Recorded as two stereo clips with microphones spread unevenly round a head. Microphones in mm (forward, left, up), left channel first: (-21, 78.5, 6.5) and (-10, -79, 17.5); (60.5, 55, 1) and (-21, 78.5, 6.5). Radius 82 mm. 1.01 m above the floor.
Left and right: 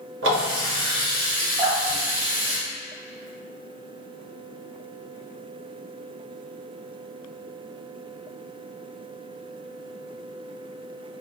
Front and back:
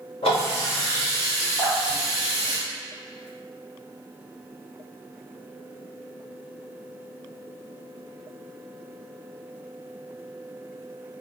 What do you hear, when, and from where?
0.2 s a running tap: 70° right, 1.0 m
1.6 s dripping: 35° right, 1.1 m